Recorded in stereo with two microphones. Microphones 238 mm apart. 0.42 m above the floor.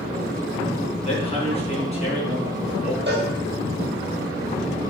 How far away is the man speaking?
About 4 m.